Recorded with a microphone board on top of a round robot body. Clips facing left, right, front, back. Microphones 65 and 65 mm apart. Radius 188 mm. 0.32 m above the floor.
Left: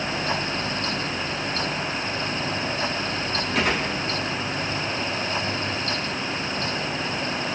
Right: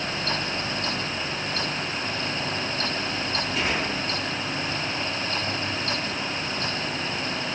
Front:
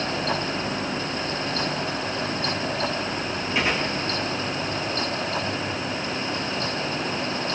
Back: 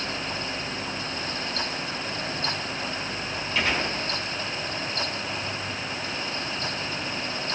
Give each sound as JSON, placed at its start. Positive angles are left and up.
{"t": 3.5, "sound": "a gunshot", "azimuth_deg": 75, "distance_m": 6.5}